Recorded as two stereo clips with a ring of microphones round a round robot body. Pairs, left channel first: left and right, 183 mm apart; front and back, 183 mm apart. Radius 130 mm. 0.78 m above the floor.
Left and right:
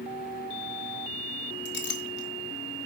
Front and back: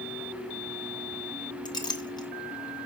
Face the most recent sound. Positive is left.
turn(degrees=70)